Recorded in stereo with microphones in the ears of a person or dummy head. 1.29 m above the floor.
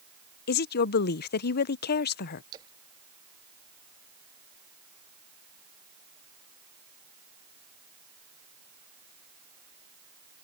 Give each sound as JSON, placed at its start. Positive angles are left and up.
{"t": 0.5, "sound": "a woman speaking", "side_deg": 55}
{"t": 2.5, "sound": "a splash", "side_deg": -20}